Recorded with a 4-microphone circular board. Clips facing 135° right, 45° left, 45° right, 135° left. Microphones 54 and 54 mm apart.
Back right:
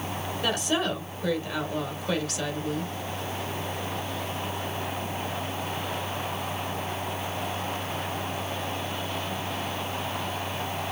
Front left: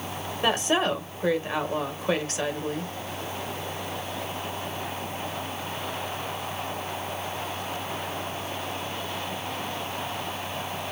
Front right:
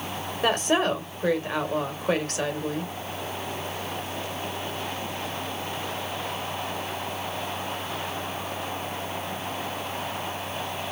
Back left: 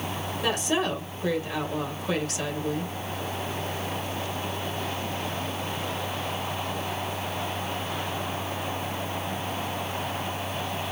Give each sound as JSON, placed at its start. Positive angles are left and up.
{"t": 0.4, "sound": "a woman speaking", "azimuth_deg": -10, "distance_m": 2.0}